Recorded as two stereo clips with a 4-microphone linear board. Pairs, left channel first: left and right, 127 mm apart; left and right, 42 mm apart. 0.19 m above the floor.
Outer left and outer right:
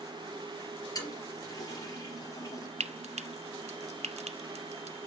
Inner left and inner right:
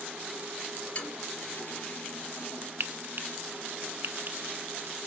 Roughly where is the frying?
Right.